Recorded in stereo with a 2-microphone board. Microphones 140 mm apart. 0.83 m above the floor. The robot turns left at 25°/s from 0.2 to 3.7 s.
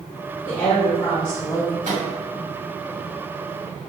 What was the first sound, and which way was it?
A woman speaking, 110° left.